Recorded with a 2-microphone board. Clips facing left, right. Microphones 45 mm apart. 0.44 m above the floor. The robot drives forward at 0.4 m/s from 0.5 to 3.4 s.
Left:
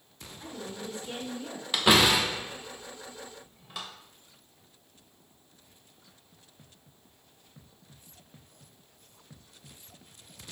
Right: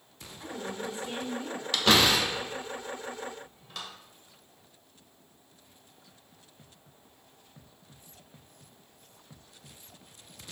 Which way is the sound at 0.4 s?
30° right (ahead or behind).